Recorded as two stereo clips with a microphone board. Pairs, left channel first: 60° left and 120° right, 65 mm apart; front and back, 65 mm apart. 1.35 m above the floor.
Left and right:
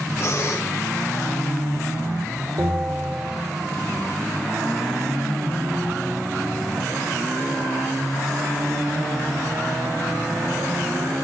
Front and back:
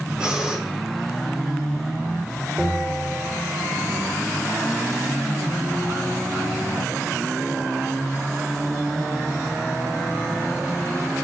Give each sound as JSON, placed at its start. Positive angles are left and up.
{"t": 0.2, "sound": "breathing", "azimuth_deg": 105, "distance_m": 2.5}
{"t": 2.6, "sound": "a bell", "azimuth_deg": -90, "distance_m": 5.5}